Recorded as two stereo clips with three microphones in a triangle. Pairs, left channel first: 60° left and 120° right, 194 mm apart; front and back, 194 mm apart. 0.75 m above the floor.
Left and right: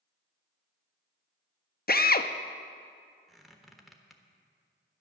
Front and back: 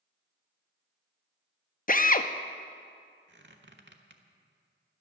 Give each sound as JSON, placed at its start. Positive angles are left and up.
{"t": 1.9, "sound": "a drill", "azimuth_deg": 35, "distance_m": 0.5}
{"t": 3.3, "sound": "a squeak", "azimuth_deg": 150, "distance_m": 1.1}